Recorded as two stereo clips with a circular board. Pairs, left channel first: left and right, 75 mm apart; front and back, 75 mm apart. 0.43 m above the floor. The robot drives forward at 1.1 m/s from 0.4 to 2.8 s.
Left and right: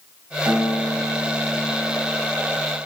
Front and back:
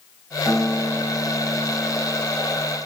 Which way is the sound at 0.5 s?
50° right.